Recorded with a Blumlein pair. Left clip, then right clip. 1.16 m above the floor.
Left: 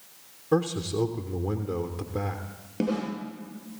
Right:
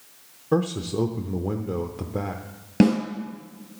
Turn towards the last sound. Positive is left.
turn(degrees=-55)